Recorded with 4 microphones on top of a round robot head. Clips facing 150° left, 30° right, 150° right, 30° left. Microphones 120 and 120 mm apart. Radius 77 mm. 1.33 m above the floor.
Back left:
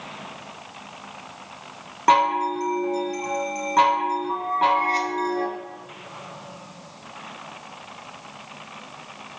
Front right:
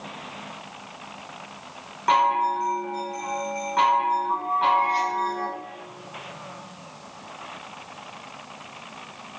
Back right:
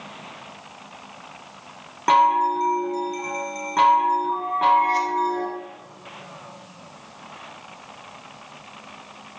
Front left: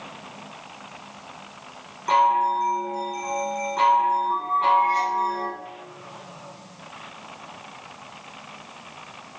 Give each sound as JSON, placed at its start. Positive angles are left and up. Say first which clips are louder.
{"t": 2.1, "sound": "a chime", "louder": "back left 2 dB, back right 2 dB", "azimuth_deg": -170, "distance_m": 0.6}